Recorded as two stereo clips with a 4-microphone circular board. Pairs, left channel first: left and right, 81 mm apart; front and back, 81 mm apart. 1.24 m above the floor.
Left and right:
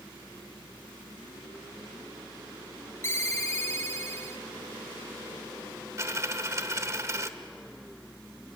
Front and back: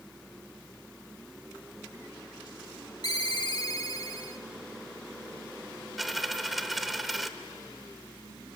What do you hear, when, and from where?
3.0 s a ringtone: 35° left, 1.3 m
6.0 s a dropped coin: 90° right, 1.0 m